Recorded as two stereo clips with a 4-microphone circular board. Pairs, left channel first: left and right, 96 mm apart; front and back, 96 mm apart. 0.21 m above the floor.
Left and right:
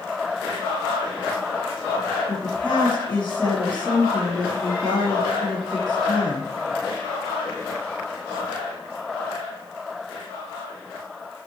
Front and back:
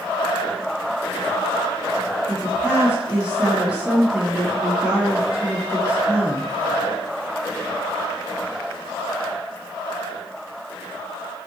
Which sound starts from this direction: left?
A woman speaking, at 2.3 s.